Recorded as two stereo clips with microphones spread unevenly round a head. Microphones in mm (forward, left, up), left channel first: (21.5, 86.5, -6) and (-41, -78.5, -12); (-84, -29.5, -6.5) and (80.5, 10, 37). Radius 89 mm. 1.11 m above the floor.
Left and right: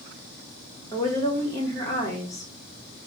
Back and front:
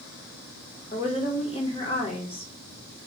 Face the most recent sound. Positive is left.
turn(degrees=140)